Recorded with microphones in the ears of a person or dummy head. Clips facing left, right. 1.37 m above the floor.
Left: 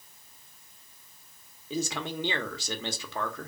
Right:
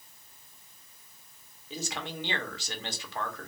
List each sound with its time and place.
1.7 s a man speaking: 75° left (ahead or behind), 1.2 m